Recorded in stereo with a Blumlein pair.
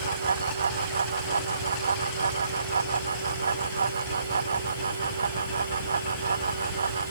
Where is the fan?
70° right.